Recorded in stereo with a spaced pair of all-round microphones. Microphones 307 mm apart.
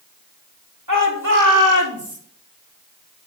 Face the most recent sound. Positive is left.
turn(degrees=-65)  # may be behind; listen again after turning